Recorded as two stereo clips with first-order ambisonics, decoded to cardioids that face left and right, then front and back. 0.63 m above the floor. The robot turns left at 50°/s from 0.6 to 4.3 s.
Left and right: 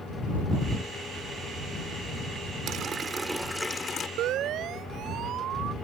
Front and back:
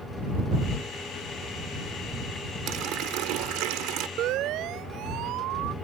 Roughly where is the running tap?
Behind right.